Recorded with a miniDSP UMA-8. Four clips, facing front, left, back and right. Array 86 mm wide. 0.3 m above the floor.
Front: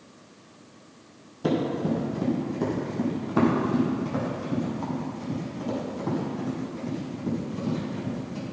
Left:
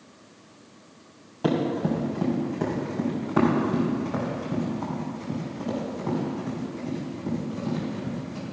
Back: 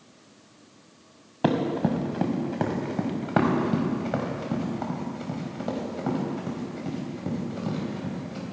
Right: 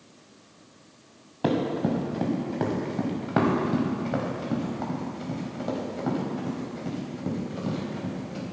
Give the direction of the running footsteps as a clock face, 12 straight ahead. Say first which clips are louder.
Left 1 dB, back 1 dB; 6 o'clock.